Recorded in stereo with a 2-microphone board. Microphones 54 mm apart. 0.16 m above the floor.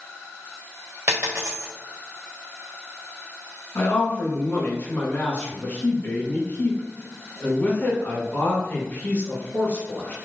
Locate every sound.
1.1 s a dropped coin: 40° right (ahead or behind), 2.0 m
3.8 s a man speaking: 35° left (ahead or behind), 1.9 m